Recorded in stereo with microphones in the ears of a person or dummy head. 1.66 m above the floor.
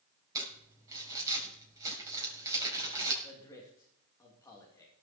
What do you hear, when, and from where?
0.3 s crumpling: 20° right (ahead or behind), 5.5 m
3.2 s a man speaking: 20° left (ahead or behind), 3 m